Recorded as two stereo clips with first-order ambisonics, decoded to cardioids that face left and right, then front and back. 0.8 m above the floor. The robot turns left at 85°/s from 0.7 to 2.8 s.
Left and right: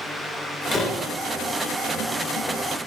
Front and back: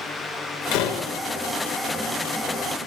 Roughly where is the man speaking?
I don't hear a man speaking.